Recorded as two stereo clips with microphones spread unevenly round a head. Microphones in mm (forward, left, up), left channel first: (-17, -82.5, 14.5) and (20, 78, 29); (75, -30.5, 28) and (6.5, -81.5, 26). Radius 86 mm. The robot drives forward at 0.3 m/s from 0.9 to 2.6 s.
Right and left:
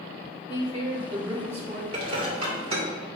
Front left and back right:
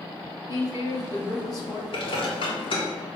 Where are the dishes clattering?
20° left, 2 m.